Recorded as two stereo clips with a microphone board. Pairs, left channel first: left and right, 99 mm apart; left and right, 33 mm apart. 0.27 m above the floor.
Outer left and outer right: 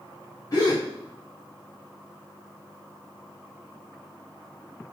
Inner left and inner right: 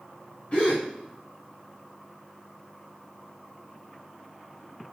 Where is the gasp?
40° left (ahead or behind), 5.5 m.